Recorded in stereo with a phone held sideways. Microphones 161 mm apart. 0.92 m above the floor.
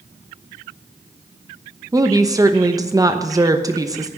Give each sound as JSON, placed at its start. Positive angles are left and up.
{"t": 1.9, "sound": "a woman speaking", "side_deg": -20, "distance_m": 0.9}